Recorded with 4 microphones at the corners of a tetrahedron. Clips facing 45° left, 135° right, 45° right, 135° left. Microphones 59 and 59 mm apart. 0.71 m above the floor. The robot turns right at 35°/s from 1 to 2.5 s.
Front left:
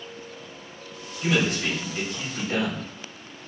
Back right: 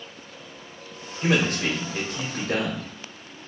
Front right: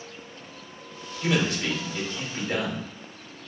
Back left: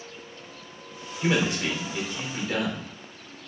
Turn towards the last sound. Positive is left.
turn(degrees=-130)